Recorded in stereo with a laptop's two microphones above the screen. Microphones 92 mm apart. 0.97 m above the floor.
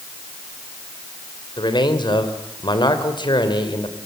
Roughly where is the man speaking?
Left.